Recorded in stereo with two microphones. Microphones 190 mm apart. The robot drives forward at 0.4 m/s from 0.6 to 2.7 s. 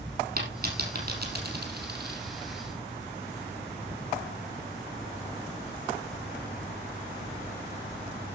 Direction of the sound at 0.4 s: 55° right (ahead or behind).